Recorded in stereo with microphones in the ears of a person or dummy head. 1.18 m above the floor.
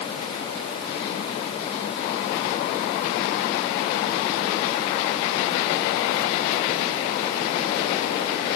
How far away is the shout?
I don't hear a shout.